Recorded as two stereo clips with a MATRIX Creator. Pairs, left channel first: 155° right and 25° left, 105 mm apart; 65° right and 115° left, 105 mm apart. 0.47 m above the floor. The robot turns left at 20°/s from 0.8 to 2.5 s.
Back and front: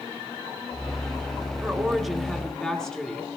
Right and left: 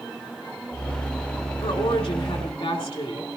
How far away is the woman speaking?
About 2.5 m.